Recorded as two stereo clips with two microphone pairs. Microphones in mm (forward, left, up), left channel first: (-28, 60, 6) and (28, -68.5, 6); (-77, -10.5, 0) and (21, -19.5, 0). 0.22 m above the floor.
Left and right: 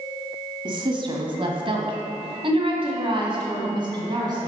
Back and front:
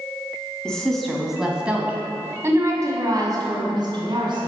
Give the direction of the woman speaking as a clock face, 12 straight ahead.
4 o'clock.